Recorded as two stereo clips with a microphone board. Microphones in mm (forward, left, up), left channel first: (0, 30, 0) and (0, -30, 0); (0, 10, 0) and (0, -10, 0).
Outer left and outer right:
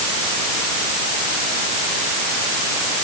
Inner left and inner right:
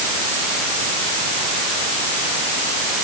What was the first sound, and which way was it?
Only background noise.